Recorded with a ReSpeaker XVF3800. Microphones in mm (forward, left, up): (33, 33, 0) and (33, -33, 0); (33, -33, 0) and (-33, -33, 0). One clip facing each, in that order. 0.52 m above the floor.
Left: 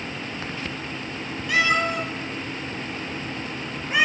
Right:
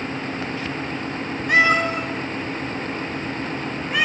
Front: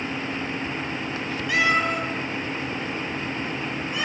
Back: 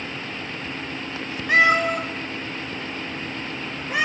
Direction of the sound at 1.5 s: 130° right.